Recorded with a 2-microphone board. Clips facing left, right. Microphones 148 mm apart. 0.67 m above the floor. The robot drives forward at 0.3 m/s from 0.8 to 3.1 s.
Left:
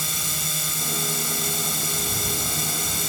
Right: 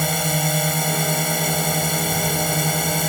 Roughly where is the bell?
No bell in this recording.